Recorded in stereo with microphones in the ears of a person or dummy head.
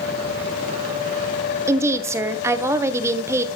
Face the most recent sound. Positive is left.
turn(degrees=-15)  # may be behind; listen again after turning